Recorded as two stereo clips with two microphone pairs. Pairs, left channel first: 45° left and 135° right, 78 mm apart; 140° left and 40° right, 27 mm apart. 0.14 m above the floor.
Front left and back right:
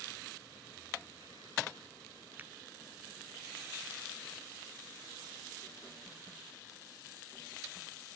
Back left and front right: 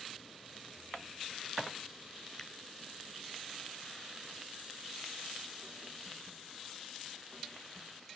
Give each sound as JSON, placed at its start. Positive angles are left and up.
{"t": 2.4, "sound": "a finger snap", "azimuth_deg": -165}